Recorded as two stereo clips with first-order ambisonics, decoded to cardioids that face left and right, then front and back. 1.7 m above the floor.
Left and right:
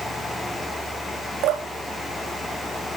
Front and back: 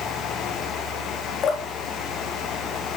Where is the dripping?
55° right, 3 m.